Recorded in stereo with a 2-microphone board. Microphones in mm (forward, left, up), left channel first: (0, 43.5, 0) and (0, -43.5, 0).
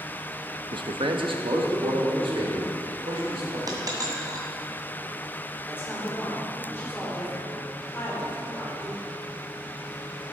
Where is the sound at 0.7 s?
60° right (ahead or behind), 0.6 m; by 3.6 s 85° right, 4 m.